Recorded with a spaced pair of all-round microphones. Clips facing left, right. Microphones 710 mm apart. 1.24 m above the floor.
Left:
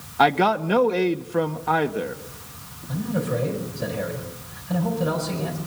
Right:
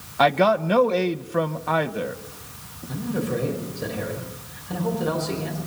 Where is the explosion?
I don't hear an explosion.